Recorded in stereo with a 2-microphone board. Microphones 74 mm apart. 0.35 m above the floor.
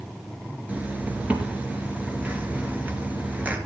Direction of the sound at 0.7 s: 20° right (ahead or behind).